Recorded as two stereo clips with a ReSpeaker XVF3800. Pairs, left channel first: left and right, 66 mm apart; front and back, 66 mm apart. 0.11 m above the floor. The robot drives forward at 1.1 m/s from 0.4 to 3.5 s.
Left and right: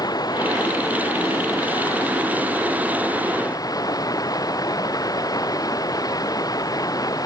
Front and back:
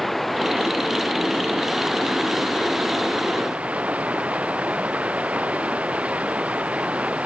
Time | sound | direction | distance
0.0 | running water | 90° left | ?